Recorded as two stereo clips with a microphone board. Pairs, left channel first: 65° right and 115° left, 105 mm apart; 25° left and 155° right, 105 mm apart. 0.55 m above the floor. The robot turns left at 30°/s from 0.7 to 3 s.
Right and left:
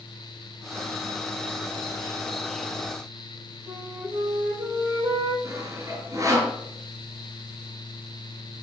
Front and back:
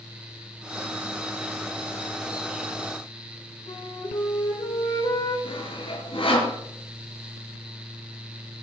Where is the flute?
60° left, 5.5 m.